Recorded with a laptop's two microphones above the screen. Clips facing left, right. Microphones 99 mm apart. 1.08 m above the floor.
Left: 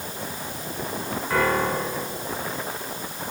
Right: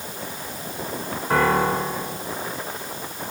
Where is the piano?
55° right (ahead or behind), 2.5 m.